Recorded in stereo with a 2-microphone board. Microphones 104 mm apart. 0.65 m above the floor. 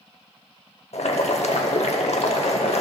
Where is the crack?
I don't hear a crack.